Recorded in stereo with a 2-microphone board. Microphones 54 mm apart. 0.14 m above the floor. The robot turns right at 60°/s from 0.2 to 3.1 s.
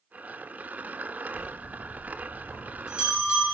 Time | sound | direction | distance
1.3 | a bell | 35° left (ahead or behind) | 1.7 m